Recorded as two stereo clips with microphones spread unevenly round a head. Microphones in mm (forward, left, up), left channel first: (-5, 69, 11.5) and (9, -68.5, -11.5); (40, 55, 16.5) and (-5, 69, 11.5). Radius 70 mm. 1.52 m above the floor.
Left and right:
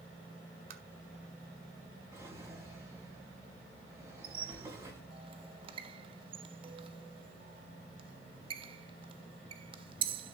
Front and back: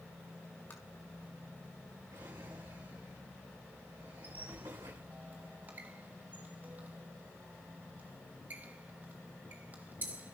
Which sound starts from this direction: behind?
A drawer, at 2.1 s.